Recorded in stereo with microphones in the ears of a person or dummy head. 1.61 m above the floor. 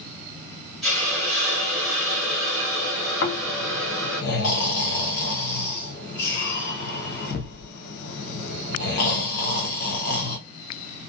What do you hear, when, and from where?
0.8 s a hiss: 5° left (ahead or behind), 1.2 m
3.2 s snoring: 50° left (ahead or behind), 0.7 m